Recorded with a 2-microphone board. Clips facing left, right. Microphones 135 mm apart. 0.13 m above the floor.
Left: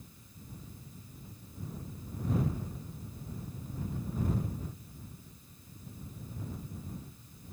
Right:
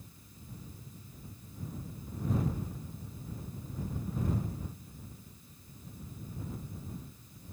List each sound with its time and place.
Only background noise.